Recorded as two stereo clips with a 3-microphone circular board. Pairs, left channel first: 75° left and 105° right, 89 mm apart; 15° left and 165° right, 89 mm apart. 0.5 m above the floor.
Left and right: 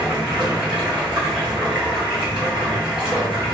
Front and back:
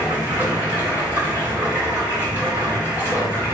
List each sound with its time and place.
0.0 s running water: 30° right, 1.7 m